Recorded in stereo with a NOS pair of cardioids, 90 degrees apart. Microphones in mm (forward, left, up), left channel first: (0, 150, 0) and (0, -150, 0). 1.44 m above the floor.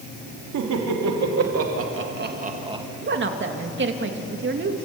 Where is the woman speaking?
40° right, 2.5 m.